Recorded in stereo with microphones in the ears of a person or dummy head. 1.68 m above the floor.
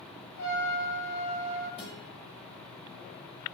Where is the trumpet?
70° left (ahead or behind), 1.8 m.